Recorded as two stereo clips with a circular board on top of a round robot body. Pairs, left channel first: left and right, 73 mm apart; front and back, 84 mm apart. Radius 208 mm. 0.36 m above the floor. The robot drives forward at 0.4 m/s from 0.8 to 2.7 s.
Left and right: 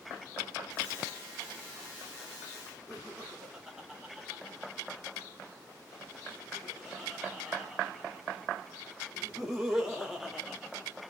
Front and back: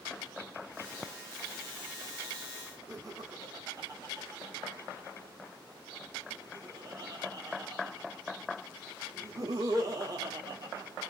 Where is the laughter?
175° right, 1.7 m.